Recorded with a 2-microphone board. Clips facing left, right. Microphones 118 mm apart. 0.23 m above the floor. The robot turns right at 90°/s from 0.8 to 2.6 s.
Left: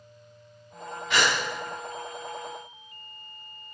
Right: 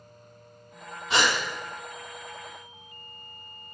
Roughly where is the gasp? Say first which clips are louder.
Right 1 dB; right.